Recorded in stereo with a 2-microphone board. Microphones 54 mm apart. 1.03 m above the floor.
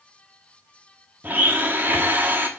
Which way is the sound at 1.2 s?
40° right (ahead or behind).